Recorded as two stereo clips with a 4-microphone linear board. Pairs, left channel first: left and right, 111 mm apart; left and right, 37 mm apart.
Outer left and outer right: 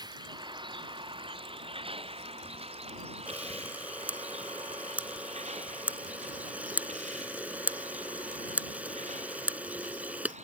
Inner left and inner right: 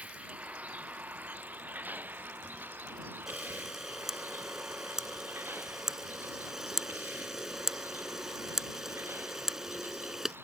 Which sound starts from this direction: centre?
A camera shutter, at 3.3 s.